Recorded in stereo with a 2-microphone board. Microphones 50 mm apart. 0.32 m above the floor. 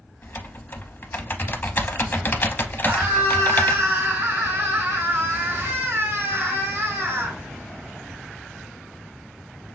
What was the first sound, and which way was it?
Typing on a keyboard, 40° left (ahead or behind).